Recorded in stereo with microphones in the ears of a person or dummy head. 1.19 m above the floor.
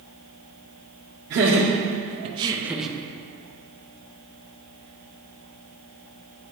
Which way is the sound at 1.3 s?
55° right (ahead or behind).